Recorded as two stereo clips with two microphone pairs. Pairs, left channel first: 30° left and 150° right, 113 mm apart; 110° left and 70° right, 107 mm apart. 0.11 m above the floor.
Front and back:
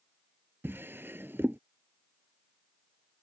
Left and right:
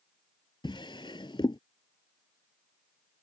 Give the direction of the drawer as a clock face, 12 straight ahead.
7 o'clock.